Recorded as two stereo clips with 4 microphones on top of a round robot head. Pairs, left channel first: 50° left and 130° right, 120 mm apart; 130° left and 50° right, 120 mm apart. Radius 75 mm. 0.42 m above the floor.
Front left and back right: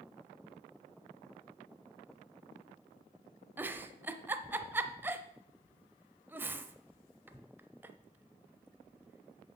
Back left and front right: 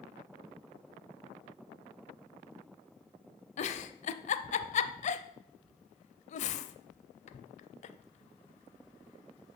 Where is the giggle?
155° left, 0.6 m.